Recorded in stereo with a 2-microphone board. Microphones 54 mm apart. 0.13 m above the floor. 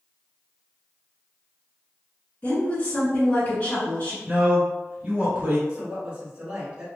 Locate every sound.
2.4 s a woman speaking: 30° left (ahead or behind), 1.5 m
4.3 s a man speaking: 25° right (ahead or behind), 1.4 m
5.7 s a woman speaking: 20° right (ahead or behind), 1.3 m